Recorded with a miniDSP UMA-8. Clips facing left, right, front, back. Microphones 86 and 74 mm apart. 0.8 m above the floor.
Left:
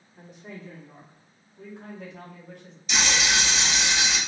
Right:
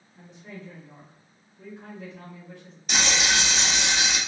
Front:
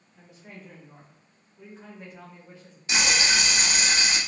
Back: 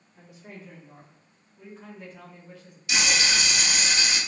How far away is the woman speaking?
About 1.9 m.